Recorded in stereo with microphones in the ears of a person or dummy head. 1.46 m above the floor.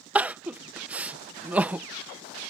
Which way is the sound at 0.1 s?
10° right (ahead or behind).